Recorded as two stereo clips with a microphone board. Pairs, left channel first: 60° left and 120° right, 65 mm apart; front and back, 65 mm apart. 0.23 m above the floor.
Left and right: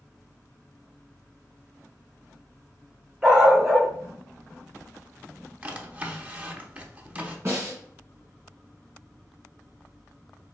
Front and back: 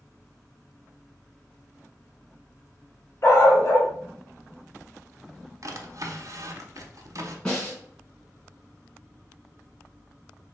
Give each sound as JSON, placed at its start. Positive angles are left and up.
{"t": 3.2, "sound": "a dog barking", "azimuth_deg": -40, "distance_m": 1.1}
{"t": 5.6, "sound": "a drawer", "azimuth_deg": 175, "distance_m": 0.7}
{"t": 7.5, "sound": "a snare drum", "azimuth_deg": -70, "distance_m": 2.0}